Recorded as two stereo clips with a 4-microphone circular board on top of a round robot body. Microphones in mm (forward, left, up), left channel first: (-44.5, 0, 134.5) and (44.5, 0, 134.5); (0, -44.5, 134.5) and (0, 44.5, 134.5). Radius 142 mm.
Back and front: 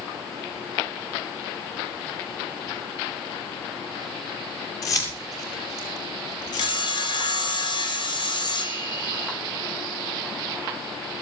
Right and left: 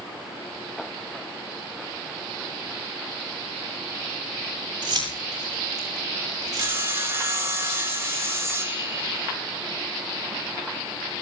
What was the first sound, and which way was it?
Keys jangling, 130° left.